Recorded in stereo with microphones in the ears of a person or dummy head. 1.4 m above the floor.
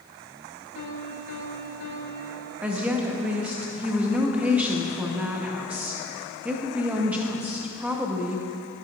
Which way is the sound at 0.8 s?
75° left (ahead or behind).